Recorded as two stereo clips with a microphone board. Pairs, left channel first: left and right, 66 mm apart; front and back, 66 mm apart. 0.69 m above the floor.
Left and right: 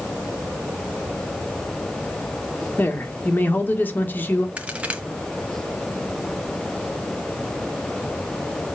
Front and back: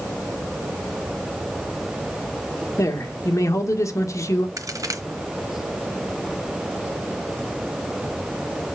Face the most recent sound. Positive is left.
turn(degrees=-160)